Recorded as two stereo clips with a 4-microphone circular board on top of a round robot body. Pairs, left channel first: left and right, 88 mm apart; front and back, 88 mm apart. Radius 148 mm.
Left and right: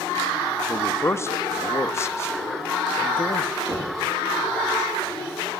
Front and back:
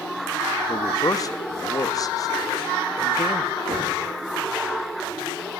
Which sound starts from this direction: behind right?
Knocking, at 3.7 s.